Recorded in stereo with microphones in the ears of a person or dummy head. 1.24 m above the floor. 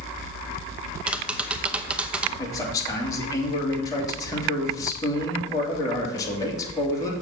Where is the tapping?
5° right (ahead or behind), 0.9 m.